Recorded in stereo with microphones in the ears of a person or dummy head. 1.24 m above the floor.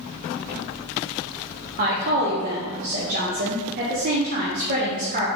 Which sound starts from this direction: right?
A woman speaking, at 1.8 s.